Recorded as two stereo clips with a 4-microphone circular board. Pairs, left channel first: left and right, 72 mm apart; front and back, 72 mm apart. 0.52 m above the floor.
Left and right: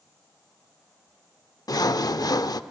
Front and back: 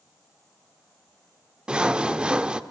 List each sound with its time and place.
1.7 s sawing: 105° left, 0.5 m